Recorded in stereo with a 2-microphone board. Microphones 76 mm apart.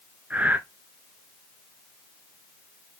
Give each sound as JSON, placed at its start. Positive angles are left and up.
{"t": 0.3, "sound": "breathing", "side_deg": -20, "distance_m": 0.7}